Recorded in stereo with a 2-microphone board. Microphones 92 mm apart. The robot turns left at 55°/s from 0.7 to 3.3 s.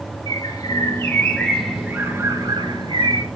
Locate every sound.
0.3 s a bird: 55° left, 2.5 m; by 3.3 s 85° right, 2.5 m